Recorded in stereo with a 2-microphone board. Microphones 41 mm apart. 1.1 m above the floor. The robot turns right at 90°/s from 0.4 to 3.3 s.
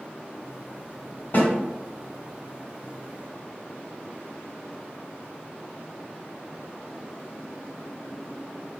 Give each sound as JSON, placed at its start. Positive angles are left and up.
{"t": 1.3, "sound": "a snare drum", "side_deg": 55, "distance_m": 1.8}